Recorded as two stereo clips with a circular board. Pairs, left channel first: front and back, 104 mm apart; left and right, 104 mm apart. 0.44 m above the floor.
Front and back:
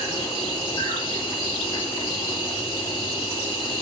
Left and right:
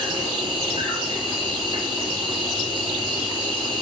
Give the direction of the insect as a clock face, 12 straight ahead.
2 o'clock.